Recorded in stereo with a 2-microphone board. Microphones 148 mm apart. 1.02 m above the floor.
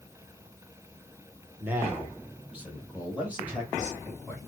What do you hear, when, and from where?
1.6 s a man speaking: 15° right (ahead or behind), 1.1 m; by 4.4 s 10° right (ahead or behind), 3 m